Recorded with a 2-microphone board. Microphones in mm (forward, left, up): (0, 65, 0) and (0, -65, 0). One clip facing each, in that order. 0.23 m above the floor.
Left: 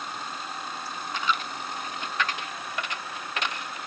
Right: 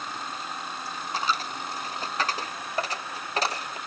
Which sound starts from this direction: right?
A dropped coin, at 1.1 s.